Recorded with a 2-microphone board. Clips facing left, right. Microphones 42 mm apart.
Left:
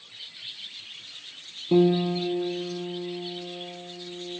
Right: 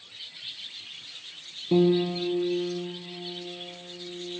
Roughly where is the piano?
Centre.